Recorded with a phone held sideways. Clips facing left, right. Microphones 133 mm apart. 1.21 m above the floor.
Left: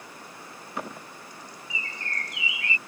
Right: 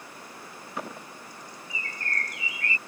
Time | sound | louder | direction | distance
1.7 | a bird | right 1 dB | 45° right (ahead or behind) | ?